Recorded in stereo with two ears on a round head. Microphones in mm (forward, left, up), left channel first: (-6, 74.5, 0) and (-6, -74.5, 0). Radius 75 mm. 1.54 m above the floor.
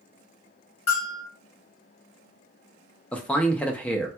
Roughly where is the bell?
Left.